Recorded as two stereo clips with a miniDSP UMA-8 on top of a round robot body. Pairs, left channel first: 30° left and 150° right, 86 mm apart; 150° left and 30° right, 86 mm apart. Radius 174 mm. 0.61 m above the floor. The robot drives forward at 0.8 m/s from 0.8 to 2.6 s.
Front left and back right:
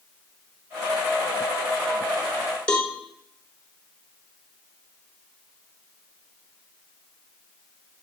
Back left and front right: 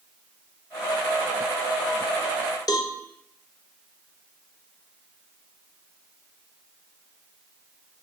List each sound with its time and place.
2.7 s a cowbell: 110° left, 3 m